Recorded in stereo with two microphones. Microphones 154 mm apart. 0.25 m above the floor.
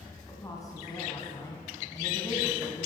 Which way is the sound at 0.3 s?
25° left (ahead or behind).